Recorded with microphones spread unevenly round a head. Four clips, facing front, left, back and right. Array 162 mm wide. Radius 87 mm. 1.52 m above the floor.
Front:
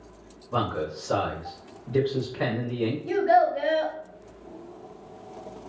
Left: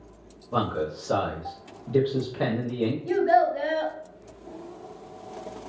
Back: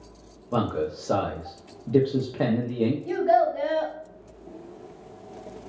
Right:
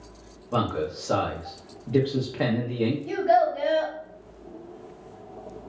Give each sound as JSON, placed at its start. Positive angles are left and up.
{"t": 0.5, "sound": "a man speaking", "azimuth_deg": -170, "distance_m": 0.7}
{"t": 3.0, "sound": "a child speaking", "azimuth_deg": 160, "distance_m": 1.6}